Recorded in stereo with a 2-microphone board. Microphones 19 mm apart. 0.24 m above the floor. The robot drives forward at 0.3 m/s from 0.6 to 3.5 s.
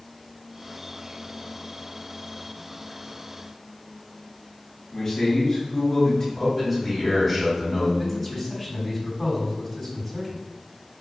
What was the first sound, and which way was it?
A man speaking, 25° left (ahead or behind).